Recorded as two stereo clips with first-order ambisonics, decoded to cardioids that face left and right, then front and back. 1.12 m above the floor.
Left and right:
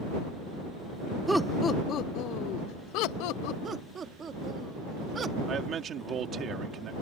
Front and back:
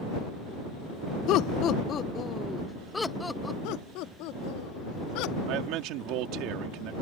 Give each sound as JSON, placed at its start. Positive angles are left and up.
{"t": 1.3, "sound": "laughter", "azimuth_deg": -10}
{"t": 3.6, "sound": "laughter", "azimuth_deg": -20}
{"t": 5.5, "sound": "a man speaking", "azimuth_deg": -150}